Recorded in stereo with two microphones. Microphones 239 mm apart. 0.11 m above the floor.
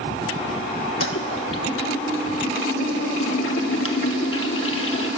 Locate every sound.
1.0 s a toilet flushing: 65° left (ahead or behind), 0.6 m